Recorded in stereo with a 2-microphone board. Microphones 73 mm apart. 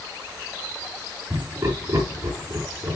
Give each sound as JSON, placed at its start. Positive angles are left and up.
{"t": 1.3, "sound": "laughter", "side_deg": -40, "distance_m": 5.0}